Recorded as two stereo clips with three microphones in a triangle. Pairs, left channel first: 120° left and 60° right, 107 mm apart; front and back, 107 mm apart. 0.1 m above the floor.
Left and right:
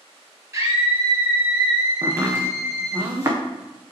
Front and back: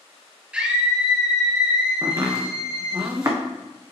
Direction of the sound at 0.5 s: 105° right.